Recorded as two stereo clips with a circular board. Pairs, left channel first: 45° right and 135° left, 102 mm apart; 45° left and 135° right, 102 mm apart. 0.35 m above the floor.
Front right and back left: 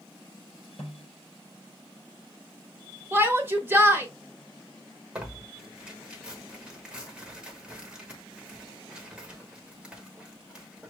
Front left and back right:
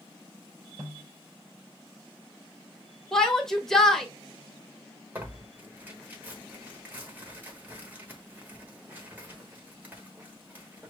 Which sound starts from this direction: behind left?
A shout, at 3.1 s.